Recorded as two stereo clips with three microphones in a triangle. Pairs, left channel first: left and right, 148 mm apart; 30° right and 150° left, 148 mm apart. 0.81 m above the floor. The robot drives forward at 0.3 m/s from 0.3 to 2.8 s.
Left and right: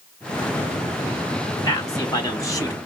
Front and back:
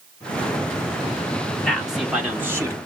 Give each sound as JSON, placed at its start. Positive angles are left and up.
{"t": 1.6, "sound": "a man speaking", "azimuth_deg": 50, "distance_m": 0.7}